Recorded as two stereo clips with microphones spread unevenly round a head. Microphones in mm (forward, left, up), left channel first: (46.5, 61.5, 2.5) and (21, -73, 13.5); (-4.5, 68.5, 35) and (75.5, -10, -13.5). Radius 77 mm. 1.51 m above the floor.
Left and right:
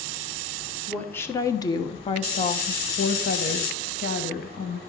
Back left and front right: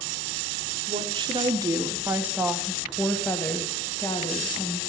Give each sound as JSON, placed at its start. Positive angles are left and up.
{"t": 0.9, "sound": "a woman speaking", "azimuth_deg": 0, "distance_m": 1.5}